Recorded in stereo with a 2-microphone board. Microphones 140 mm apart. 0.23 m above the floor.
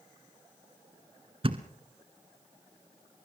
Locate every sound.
1.4 s a thud: 40° right (ahead or behind), 1.4 m